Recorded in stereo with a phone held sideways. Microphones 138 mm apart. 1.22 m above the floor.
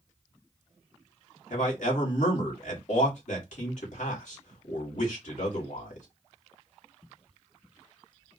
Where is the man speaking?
65° left (ahead or behind), 1.4 m.